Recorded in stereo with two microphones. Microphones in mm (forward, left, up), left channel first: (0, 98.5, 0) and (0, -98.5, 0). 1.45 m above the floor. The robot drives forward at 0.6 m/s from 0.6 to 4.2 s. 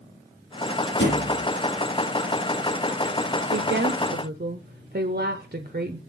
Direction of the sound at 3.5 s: 60° right (ahead or behind).